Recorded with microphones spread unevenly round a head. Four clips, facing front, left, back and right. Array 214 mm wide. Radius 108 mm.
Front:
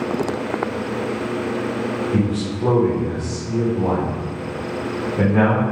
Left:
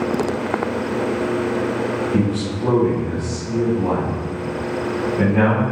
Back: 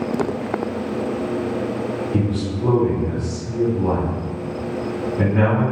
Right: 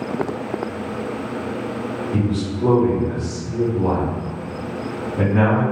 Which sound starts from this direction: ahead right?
A man speaking, at 2.1 s.